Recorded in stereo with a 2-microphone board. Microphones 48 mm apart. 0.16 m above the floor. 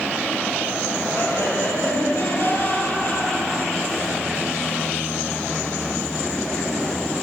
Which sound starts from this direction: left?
Laughter, at 1.1 s.